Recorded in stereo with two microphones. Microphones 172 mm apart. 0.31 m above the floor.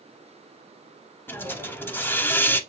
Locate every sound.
1.3 s a hiss: 15° left (ahead or behind), 0.5 m